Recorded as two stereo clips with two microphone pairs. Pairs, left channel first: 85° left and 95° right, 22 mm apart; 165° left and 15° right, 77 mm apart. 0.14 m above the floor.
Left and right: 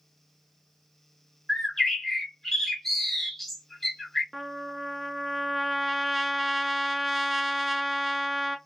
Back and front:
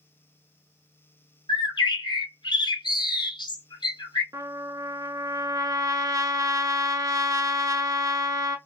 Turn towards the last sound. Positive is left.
turn(degrees=-15)